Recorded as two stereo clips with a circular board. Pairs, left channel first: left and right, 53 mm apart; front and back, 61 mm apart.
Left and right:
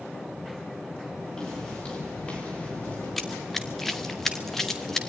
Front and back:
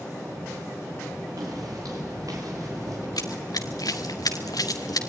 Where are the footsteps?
165° left, 8.5 m; by 3.1 s 150° left, 7.5 m.